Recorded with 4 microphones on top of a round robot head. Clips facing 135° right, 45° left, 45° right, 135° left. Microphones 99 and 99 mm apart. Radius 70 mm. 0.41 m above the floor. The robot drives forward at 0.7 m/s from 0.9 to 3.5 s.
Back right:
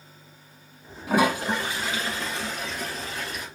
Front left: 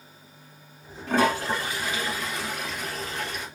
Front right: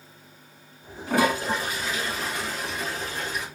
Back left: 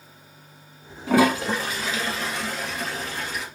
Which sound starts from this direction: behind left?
A toilet flushing, at 1.1 s.